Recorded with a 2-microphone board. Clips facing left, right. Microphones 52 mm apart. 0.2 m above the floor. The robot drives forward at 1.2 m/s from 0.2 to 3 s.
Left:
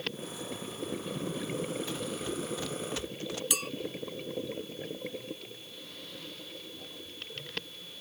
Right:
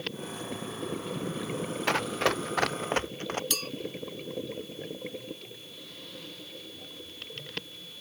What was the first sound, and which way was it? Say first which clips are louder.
Running footsteps: right 9 dB; 70° right (ahead or behind).